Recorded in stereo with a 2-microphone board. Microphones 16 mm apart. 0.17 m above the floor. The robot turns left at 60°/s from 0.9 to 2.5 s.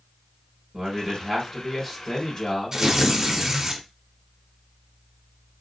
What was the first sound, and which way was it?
A man speaking, 135° right.